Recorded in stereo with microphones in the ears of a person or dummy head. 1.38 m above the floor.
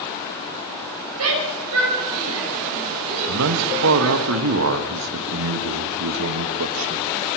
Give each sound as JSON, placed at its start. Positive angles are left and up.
{"t": 1.2, "sound": "a shout", "side_deg": -90, "distance_m": 7.0}
{"t": 3.3, "sound": "a man speaking", "side_deg": -80, "distance_m": 1.8}